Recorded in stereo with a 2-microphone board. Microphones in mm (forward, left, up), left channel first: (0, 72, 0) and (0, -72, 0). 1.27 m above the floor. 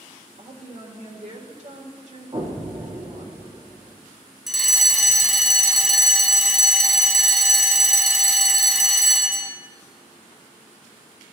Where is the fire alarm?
Centre (ahead or behind), 0.9 m.